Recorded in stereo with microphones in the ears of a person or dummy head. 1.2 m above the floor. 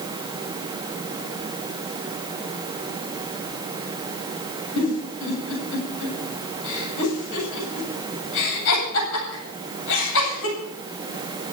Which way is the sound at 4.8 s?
80° left.